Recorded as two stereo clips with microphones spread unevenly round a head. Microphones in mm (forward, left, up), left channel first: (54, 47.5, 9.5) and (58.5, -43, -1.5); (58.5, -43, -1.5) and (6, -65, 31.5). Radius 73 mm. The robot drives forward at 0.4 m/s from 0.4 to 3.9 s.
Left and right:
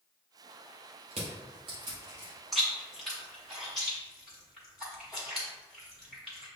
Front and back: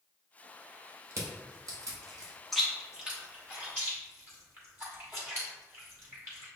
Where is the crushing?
140° right, 0.8 m; by 2.3 s 155° right, 1.2 m.